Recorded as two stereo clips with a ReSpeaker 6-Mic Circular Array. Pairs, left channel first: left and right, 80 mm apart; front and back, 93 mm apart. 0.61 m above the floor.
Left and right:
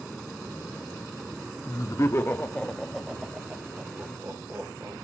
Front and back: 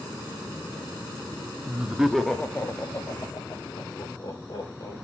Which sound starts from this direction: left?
Laughter, at 1.7 s.